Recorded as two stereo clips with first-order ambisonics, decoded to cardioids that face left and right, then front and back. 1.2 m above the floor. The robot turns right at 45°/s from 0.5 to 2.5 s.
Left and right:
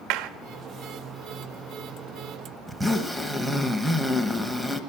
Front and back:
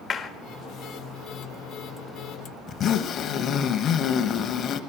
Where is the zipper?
10° right, 1.1 m.